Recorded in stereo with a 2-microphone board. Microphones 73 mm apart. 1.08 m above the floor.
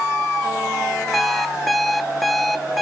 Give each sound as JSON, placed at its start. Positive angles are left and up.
{"t": 1.1, "sound": "an alarm clock", "side_deg": 5, "distance_m": 0.9}